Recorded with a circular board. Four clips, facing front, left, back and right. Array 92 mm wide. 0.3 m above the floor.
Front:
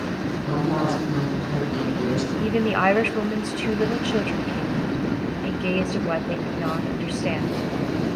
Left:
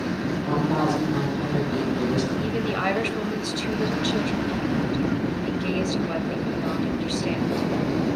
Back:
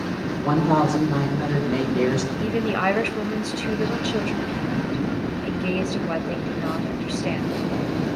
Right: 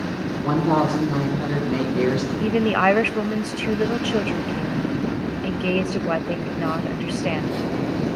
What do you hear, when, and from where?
0.4 s a woman speaking: 135° right, 6.5 m
2.4 s a woman speaking: 70° right, 1.0 m